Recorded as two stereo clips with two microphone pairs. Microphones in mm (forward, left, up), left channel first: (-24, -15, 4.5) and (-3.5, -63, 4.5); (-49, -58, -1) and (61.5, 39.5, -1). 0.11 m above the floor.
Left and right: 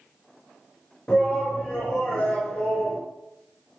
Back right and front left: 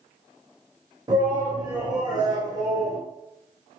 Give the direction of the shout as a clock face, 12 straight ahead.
10 o'clock.